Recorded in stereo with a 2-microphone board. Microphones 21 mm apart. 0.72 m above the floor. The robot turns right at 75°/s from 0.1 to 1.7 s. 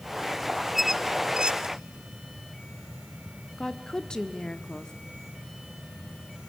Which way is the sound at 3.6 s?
35° left (ahead or behind).